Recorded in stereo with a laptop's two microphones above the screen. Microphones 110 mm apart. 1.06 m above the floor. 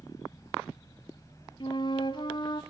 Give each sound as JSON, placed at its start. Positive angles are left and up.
{"t": 0.0, "sound": "a fan", "side_deg": 30, "distance_m": 3.0}
{"t": 1.6, "sound": "a flute", "side_deg": 45, "distance_m": 1.3}